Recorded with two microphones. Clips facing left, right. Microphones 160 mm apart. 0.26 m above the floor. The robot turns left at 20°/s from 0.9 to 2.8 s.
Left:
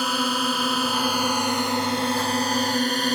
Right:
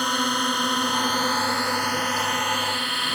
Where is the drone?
175° left; by 3.2 s 135° left.